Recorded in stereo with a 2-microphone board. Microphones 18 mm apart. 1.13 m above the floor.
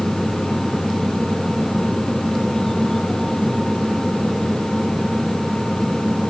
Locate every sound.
Only background noise.